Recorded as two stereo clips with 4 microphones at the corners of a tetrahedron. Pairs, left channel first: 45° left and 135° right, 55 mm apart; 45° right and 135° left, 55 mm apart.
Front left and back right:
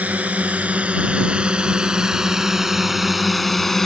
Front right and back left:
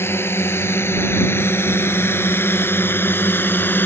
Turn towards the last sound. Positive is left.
turn(degrees=-35)